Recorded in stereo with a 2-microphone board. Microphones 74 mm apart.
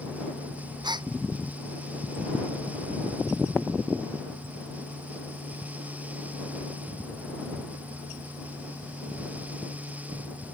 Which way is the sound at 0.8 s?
80° right.